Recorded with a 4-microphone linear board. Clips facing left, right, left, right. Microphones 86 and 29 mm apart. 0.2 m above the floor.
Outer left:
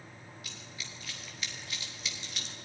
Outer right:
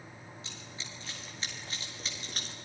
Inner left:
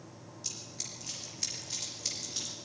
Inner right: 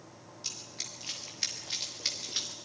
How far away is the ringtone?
I don't hear a ringtone.